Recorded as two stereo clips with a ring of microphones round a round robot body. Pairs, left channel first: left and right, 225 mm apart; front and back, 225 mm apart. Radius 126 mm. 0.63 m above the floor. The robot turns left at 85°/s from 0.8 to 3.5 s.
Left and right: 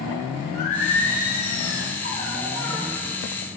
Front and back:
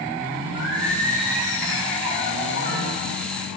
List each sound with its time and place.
0.5 s singing: 135° left, 3 m; by 2.9 s 40° right, 3 m